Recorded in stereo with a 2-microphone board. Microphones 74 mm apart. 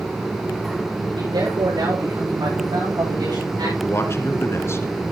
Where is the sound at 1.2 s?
80° right, 9.5 m; by 3.7 s 75° right (ahead or behind), 11 m.